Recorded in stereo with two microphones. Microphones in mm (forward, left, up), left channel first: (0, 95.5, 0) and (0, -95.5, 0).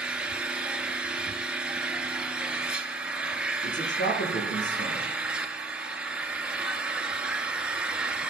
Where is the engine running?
5° right (ahead or behind), 1.0 m.